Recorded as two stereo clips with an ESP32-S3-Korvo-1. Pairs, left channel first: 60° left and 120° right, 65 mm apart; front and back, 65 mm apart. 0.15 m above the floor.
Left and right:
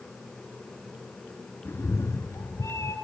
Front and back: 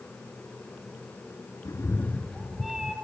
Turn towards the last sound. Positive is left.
turn(degrees=100)